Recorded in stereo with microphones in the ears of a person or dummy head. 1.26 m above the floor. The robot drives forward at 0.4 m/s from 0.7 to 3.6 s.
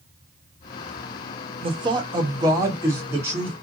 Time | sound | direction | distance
1.6 | a man speaking | 25° right (ahead or behind) | 0.6 m